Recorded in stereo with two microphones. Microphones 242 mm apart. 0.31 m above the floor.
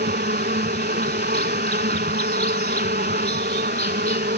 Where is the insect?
40° right (ahead or behind).